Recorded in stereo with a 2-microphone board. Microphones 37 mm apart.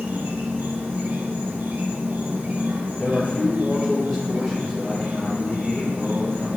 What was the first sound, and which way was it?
An insect, 85° right.